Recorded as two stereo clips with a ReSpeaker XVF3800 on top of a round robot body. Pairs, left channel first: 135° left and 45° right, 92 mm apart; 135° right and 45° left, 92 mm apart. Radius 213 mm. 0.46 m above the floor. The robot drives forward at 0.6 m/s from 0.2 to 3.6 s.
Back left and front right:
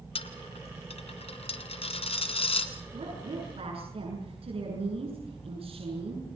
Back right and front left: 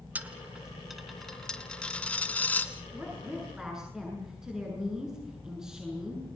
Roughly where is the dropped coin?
Behind left.